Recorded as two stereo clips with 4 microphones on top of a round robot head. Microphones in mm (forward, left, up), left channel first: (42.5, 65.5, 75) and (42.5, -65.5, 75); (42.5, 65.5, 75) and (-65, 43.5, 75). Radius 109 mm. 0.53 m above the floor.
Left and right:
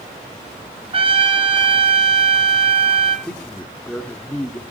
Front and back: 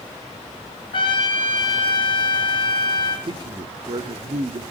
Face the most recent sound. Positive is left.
turn(degrees=170)